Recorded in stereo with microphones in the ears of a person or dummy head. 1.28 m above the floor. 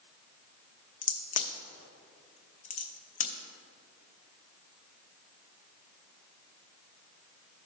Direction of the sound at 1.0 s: 40° left (ahead or behind).